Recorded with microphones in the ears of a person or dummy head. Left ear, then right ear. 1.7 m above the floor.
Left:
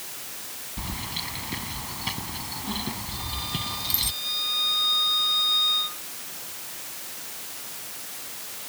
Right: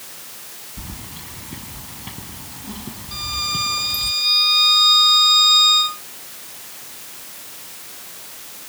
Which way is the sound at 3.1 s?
65° right (ahead or behind).